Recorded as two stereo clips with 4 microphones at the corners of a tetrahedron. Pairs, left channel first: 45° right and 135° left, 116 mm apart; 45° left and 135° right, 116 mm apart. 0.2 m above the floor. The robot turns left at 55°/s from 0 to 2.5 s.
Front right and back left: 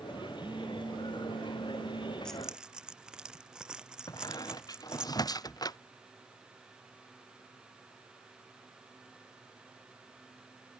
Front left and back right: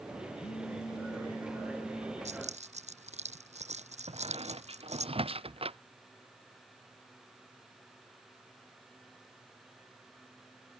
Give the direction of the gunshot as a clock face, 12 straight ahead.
I don't hear a gunshot.